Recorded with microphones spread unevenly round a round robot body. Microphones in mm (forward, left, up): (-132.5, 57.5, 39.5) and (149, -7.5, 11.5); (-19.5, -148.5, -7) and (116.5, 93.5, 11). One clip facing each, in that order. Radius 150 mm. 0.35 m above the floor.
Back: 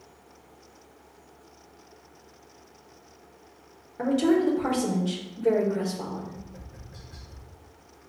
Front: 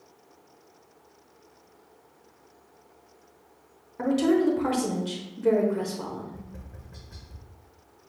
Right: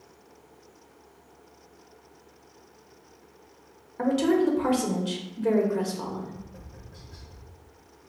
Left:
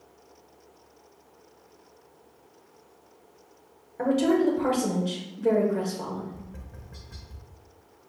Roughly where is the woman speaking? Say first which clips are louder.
Even, even; right.